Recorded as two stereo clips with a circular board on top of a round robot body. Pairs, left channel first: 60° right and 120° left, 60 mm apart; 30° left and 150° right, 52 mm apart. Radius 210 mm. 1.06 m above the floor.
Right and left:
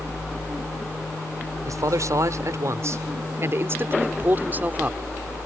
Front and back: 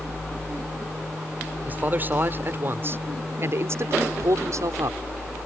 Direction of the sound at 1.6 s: 150° left.